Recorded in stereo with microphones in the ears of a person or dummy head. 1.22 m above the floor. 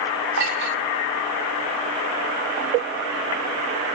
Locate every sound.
0.4 s a clink: 55° right (ahead or behind), 3 m